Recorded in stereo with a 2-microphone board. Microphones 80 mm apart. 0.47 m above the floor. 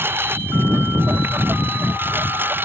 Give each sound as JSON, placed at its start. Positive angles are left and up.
{"t": 0.0, "sound": "a lawn mower", "side_deg": -30}